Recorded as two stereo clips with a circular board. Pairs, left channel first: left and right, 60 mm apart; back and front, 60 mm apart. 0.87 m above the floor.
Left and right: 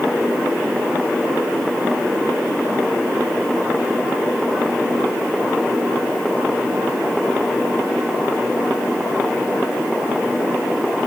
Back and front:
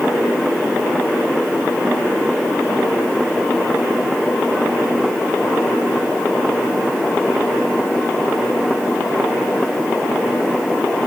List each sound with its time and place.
Only background noise.